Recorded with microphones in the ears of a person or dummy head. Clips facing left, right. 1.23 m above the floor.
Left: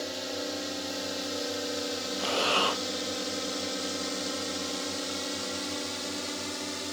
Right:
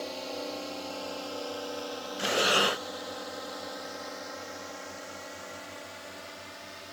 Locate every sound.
0.0 s a drone: 15° left (ahead or behind); by 6.9 s 65° left (ahead or behind)
2.2 s breathing: 20° right (ahead or behind)